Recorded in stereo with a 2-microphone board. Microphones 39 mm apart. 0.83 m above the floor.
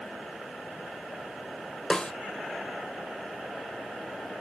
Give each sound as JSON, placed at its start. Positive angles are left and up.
{"t": 1.9, "sound": "a snare drum", "side_deg": 25, "distance_m": 1.1}